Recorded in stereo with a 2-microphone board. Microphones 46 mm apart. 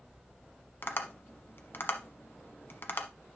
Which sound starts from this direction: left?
Tapping, at 0.8 s.